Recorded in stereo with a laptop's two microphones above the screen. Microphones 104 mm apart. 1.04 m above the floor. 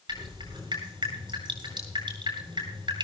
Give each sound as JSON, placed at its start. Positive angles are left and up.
{"t": 0.1, "sound": "dripping", "side_deg": -50, "distance_m": 9.0}